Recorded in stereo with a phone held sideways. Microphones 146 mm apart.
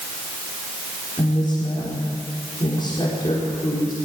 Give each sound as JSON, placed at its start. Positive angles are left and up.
{"t": 1.2, "sound": "a woman speaking", "side_deg": 35, "distance_m": 5.0}